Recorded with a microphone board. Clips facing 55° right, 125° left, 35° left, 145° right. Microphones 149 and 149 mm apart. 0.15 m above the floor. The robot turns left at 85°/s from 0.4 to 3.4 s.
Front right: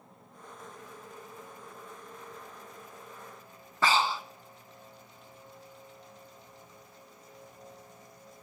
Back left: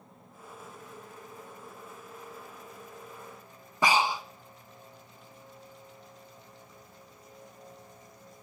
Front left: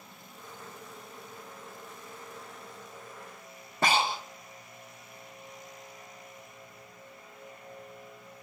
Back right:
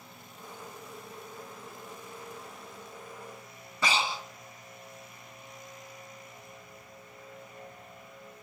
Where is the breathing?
50° left, 0.6 m.